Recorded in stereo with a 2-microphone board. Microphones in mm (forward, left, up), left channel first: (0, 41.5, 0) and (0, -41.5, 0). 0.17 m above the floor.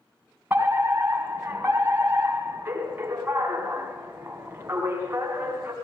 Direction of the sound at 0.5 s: 25° right (ahead or behind).